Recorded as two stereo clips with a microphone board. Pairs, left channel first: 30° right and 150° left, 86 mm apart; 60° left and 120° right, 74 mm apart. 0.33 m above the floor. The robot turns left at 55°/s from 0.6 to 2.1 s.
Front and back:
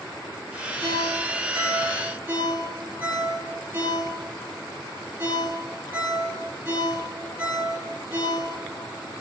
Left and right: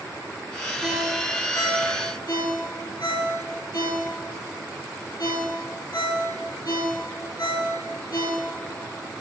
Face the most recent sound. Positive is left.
turn(degrees=80)